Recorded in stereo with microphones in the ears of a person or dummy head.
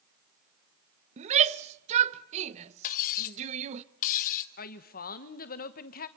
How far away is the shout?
About 0.9 m.